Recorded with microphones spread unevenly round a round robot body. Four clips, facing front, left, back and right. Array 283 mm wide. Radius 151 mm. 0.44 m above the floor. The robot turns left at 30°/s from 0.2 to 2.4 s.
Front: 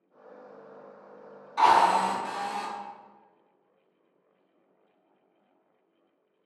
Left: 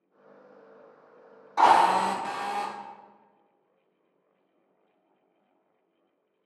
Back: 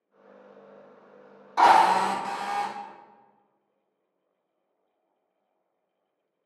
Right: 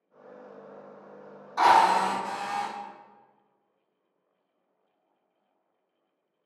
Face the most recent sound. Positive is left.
turn(degrees=120)